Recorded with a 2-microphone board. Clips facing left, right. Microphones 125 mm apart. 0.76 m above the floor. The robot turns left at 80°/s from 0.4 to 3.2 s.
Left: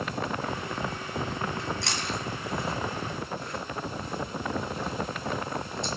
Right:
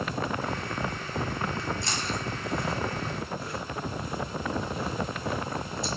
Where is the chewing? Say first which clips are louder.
Even; 55° left (ahead or behind), 4 m; by 5.9 s 5° right (ahead or behind), 4 m.